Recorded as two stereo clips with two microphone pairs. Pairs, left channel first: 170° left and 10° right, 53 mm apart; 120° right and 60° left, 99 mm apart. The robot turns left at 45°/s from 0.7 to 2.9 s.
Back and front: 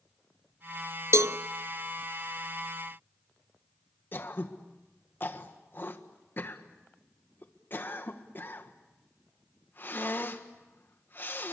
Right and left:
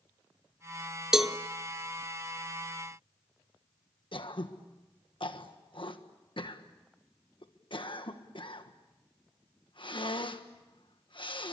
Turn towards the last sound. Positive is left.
turn(degrees=-145)